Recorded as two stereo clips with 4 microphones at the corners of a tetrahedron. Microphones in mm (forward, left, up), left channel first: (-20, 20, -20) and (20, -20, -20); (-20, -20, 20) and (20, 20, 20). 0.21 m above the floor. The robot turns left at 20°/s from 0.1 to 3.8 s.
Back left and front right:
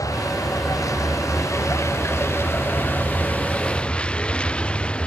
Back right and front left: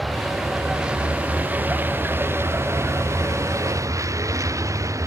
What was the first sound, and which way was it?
A vehicle, 140° left.